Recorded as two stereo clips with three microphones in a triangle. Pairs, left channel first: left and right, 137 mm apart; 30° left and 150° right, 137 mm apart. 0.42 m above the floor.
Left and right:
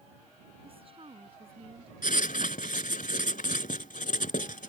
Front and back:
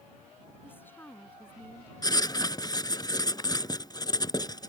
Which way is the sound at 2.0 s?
90° left.